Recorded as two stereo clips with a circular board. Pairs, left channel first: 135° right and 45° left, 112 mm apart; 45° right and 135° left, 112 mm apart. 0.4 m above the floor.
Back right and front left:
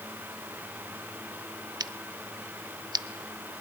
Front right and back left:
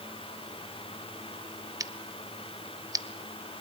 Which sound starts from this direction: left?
Scissors, at 1.8 s.